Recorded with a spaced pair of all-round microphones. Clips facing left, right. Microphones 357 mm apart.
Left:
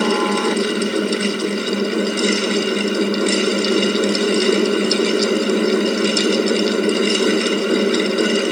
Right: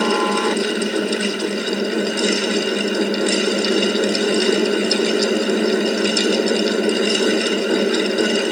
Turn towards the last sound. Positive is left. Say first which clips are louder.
# left 1 dB
turn(degrees=10)  # may be behind; listen again after turning